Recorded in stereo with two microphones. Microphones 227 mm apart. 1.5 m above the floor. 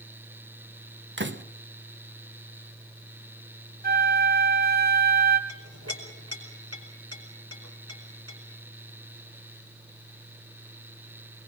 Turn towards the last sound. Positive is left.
turn(degrees=-85)